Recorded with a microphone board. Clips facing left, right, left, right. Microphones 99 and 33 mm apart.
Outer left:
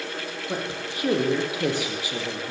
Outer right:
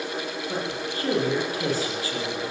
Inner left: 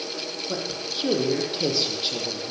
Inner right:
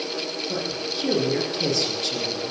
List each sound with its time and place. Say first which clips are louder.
0.5 s a man speaking: outer left 1 dB, inner right 2 dB; 15° left (ahead or behind), 7.5 m